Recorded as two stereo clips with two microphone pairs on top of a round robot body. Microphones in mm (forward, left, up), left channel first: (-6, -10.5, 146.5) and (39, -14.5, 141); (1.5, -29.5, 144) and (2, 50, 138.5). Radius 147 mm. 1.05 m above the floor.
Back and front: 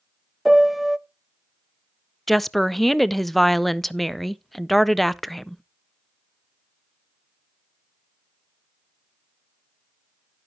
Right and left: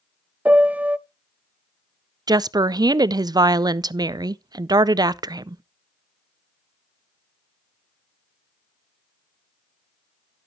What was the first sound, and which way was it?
A piano, 60° left.